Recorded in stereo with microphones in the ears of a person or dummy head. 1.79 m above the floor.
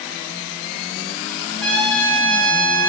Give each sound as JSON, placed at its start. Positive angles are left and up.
{"t": 1.6, "sound": "a trumpet", "side_deg": -5, "distance_m": 0.7}